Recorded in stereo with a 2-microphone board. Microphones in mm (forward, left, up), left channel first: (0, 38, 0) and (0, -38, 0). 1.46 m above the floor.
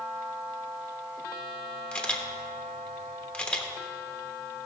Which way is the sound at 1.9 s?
15° left (ahead or behind).